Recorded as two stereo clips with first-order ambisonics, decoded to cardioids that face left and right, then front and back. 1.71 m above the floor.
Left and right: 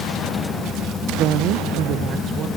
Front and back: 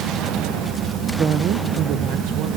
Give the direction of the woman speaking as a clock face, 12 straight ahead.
4 o'clock.